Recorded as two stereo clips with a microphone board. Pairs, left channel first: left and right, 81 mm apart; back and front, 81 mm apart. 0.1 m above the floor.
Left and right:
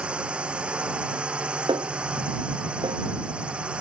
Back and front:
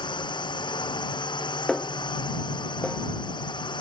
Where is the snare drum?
95° right.